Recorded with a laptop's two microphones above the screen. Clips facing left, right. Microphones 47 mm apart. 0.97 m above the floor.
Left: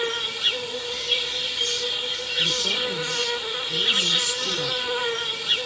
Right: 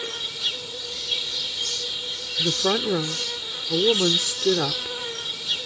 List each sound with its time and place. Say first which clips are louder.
0.0 s an insect: left 5 dB; 40° left (ahead or behind)
2.4 s a woman speaking: right 3 dB; 75° right (ahead or behind)